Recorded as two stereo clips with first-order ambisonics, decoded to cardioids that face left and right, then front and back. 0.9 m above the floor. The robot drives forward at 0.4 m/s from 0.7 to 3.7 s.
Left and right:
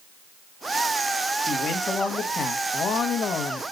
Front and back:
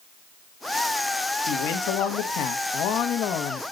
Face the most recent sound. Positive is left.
turn(degrees=45)